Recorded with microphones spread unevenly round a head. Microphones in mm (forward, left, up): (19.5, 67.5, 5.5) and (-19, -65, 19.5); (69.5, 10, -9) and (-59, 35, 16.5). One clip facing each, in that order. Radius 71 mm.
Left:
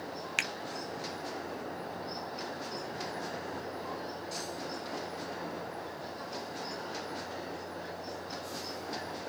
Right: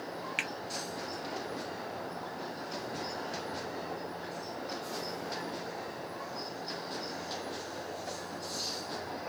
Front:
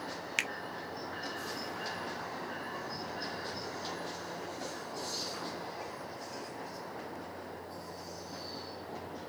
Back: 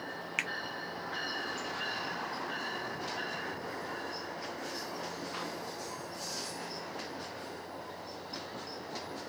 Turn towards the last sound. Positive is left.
turn(degrees=35)